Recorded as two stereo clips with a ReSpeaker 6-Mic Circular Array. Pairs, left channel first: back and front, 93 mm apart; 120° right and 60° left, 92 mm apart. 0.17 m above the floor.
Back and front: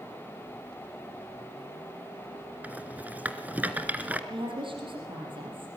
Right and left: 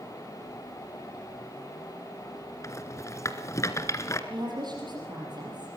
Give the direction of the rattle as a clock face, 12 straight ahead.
2 o'clock.